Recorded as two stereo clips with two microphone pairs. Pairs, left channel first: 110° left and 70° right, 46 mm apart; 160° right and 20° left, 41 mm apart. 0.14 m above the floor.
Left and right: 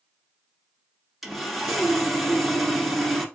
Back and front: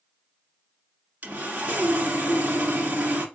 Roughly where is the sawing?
Ahead.